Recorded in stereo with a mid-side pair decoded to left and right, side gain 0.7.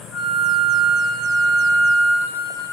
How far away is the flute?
About 1.4 m.